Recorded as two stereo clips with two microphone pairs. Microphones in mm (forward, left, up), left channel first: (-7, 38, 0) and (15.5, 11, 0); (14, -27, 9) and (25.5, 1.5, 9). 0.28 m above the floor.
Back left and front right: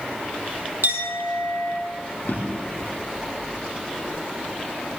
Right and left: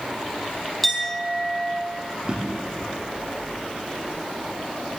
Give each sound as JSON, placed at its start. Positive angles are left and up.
{"t": 0.8, "sound": "a clink", "azimuth_deg": -30, "distance_m": 5.0}
{"t": 2.2, "sound": "a drawer", "azimuth_deg": 120, "distance_m": 6.0}